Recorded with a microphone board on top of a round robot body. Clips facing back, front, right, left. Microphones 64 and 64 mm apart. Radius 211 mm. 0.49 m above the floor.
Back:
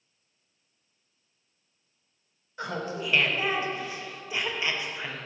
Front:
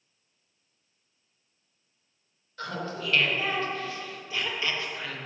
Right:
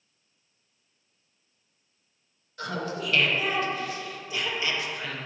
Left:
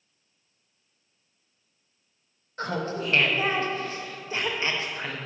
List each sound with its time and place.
2.6 s laughter: 120° left, 0.7 m